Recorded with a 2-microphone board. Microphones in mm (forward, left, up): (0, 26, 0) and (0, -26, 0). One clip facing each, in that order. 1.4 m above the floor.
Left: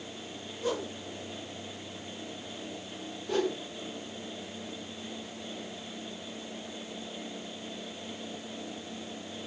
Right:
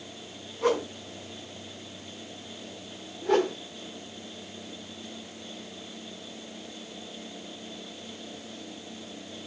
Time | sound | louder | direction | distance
0.6 | a whoosh | right 7 dB | 70° right (ahead or behind) | 3 m
3.2 | a whoosh | right 6 dB | 80° right | 5 m